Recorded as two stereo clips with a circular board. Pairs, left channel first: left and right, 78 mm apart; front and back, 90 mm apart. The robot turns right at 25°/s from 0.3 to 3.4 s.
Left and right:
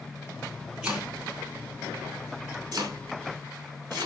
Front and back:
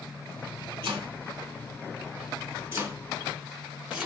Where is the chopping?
165° right, 1.6 m; by 4.1 s 105° right, 1.6 m.